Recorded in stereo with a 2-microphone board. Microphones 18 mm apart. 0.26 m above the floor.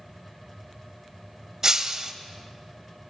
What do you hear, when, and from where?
1.6 s breaking glass: 25° right (ahead or behind), 0.6 m